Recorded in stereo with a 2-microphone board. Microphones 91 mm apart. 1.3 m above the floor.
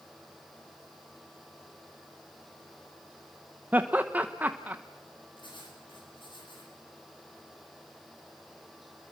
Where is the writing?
60° left (ahead or behind), 8 m.